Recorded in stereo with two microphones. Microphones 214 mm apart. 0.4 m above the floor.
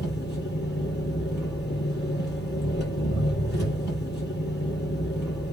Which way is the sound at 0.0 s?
55° left (ahead or behind).